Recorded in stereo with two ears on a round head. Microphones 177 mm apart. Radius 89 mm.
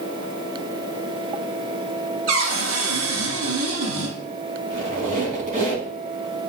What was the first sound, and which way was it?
A cupboard door, 70° right (ahead or behind).